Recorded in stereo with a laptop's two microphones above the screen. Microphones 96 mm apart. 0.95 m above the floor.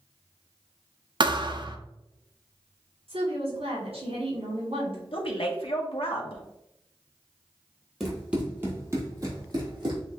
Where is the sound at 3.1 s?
80° right, 1.9 m.